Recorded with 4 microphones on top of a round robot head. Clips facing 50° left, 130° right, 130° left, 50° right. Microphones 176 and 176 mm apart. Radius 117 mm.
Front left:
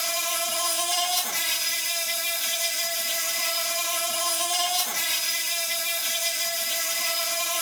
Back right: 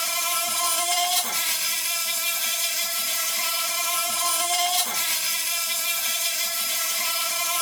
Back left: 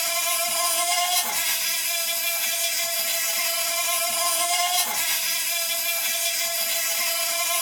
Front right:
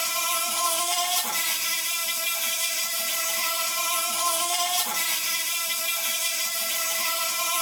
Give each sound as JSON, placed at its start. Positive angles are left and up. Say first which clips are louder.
{"t": 0.0, "sound": "an insect", "louder": "front left 1 dB, back left 4 dB", "azimuth_deg": -155, "distance_m": 1.9}